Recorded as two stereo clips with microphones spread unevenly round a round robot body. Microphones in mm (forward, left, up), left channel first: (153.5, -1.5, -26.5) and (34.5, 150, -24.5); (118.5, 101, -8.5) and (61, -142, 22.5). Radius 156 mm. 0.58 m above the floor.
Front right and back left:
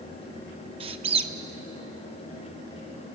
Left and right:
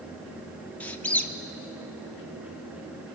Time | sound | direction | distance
0.8 | a squeak | 135° left | 0.5 m